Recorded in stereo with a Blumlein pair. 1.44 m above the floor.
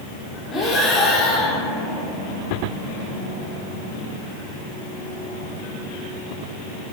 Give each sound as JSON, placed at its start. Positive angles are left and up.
{"t": 0.5, "sound": "breathing", "azimuth_deg": 10, "distance_m": 3.0}